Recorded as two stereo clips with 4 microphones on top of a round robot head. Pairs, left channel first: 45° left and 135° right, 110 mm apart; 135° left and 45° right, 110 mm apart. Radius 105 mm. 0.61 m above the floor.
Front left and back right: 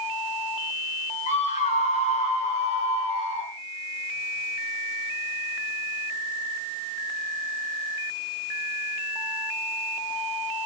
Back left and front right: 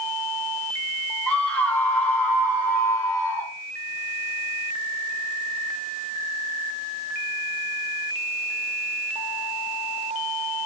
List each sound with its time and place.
1.3 s a scream: 55° left, 5 m; by 3.5 s 65° left, 4 m